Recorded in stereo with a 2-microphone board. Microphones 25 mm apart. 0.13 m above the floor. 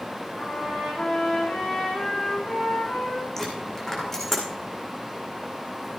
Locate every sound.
0.4 s a trumpet: 65° left (ahead or behind), 6 m
3.4 s a dropped coin: 15° left (ahead or behind), 4 m